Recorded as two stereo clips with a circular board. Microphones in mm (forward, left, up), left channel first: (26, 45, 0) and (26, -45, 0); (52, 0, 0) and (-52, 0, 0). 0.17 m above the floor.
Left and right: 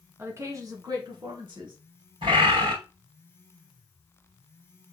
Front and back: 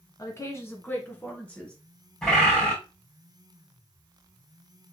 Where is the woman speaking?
40° right, 1.5 m; by 1.8 s 80° right, 2.5 m.